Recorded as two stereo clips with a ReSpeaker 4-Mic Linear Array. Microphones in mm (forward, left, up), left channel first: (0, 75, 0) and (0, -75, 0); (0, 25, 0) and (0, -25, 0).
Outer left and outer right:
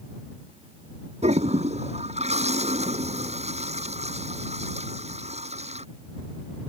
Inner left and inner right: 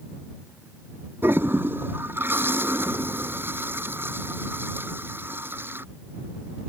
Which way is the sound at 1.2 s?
45° right (ahead or behind).